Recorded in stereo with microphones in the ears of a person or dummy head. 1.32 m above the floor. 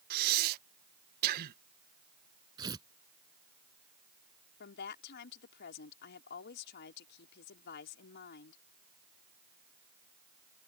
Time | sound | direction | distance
0.1 | breathing | 50° right (ahead or behind) | ?
2.6 | tearing paper | 20° right (ahead or behind) | ?
4.6 | a woman speaking | 60° left (ahead or behind) | ?